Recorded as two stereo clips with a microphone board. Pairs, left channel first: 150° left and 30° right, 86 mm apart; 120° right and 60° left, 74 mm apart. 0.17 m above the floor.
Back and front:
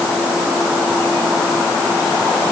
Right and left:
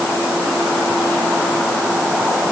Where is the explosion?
I don't hear an explosion.